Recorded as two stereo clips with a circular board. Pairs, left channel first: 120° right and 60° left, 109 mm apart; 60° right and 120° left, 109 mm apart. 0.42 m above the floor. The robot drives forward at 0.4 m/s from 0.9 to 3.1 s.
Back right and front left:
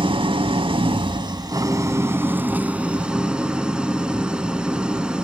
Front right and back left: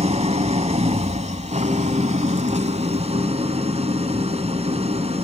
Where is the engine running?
100° left, 0.8 m; by 5.2 s 140° left, 1.3 m.